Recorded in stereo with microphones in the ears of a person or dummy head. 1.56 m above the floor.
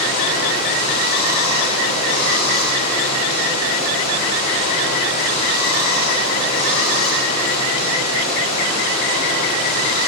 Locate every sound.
0.0 s running water: 45° left (ahead or behind), 2.5 m